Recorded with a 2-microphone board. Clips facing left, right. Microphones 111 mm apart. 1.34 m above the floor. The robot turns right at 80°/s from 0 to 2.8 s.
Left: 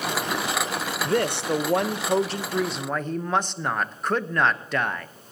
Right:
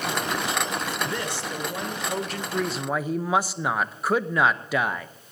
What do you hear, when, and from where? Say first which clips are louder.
1.0 s a woman speaking: left 7 dB; 45° left, 0.7 m; by 5.1 s 170° right, 0.7 m